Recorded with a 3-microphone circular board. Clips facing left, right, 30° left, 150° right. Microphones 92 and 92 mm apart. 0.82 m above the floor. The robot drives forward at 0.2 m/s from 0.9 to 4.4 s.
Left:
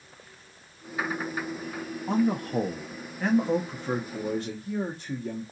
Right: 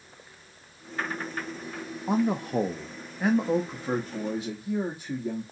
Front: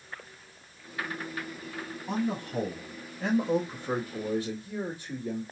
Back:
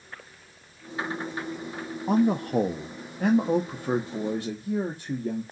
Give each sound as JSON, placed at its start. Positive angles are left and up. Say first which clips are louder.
{"t": 2.1, "sound": "a man speaking", "louder": "even, back 9 dB", "azimuth_deg": -160, "distance_m": 0.5}